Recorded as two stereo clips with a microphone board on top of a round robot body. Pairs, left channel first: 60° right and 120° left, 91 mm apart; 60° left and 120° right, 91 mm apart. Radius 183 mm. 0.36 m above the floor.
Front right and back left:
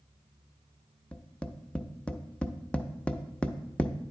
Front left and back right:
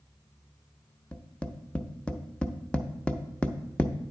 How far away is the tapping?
About 0.7 m.